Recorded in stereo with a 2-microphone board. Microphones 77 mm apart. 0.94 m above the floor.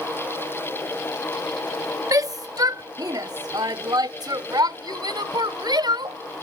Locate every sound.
2.1 s a shout: 45° right (ahead or behind); by 6.2 s 65° right (ahead or behind)